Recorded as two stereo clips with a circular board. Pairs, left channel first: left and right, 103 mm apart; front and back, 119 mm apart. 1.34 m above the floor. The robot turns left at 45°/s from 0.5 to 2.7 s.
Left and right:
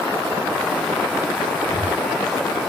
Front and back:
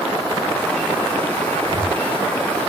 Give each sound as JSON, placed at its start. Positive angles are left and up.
{"t": 1.6, "sound": "breathing", "azimuth_deg": 140, "distance_m": 1.7}